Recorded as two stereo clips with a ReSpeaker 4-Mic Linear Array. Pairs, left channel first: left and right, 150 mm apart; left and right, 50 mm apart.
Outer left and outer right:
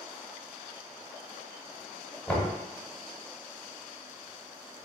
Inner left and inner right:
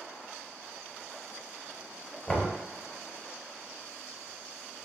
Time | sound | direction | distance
2.3 | knocking | 10° left (ahead or behind) | 0.8 m